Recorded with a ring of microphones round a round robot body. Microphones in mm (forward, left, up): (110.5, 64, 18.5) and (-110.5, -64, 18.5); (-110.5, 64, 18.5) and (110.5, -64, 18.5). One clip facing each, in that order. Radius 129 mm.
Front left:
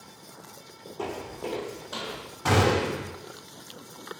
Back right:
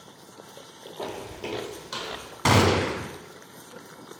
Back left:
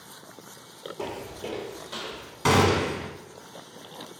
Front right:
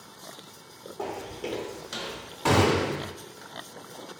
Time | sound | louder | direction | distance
1.0 | footsteps | front left 1 dB, front right 1 dB | 90° left | 0.6 m
2.5 | a gunshot | back right 2 dB, back left 1 dB | 150° right | 0.9 m